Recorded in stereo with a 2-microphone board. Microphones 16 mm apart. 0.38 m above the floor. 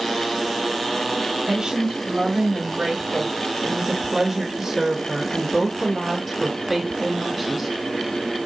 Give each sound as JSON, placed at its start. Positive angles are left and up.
{"t": 1.5, "sound": "a woman speaking", "side_deg": -50, "distance_m": 2.0}